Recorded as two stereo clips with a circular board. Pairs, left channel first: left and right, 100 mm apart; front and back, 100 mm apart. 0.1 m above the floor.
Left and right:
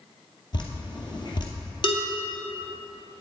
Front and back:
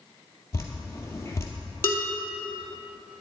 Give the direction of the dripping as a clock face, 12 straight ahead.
10 o'clock.